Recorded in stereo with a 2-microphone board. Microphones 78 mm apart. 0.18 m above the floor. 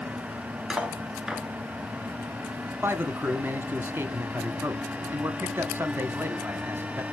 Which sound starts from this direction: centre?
Cutlery clinking, at 0.7 s.